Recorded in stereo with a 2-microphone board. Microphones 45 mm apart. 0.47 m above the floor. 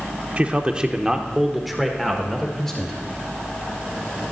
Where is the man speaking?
25° right (ahead or behind), 0.9 m; by 3.0 s 10° left (ahead or behind), 1.5 m.